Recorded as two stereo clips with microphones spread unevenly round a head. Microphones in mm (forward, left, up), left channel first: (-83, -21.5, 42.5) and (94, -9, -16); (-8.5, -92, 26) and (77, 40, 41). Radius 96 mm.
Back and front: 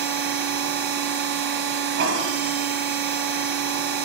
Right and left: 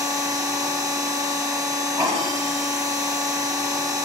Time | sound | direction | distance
0.0 | a machine running | 15° right | 1.3 m